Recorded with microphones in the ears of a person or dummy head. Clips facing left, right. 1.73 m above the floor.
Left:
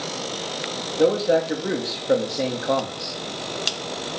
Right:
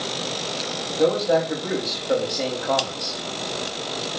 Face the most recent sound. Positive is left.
turn(degrees=20)  # may be behind; listen again after turning